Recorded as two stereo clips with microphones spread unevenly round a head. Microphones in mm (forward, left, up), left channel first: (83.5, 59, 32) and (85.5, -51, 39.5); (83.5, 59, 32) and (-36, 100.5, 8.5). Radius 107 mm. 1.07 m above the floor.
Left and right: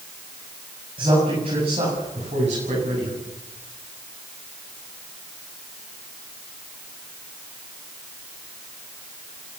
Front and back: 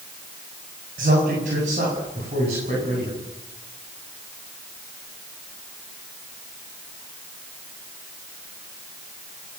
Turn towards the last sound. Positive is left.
turn(degrees=-140)